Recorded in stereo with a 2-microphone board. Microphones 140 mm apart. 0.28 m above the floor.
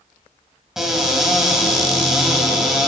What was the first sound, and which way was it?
A cupboard door, 5° right (ahead or behind).